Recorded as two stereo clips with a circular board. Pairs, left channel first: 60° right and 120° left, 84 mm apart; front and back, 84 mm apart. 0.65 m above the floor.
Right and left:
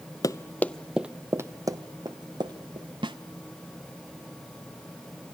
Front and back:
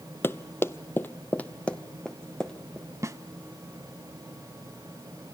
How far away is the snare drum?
About 0.8 m.